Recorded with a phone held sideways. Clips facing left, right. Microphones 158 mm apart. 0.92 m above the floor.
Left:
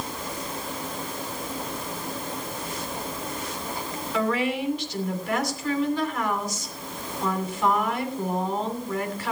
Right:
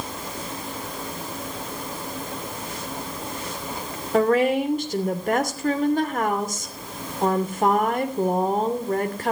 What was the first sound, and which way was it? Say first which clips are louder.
A woman speaking: right 7 dB; 50° right (ahead or behind).